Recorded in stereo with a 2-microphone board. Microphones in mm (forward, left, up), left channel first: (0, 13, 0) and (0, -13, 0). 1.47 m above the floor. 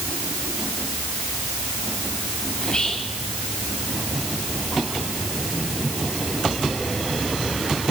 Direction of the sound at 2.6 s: 35° left (ahead or behind).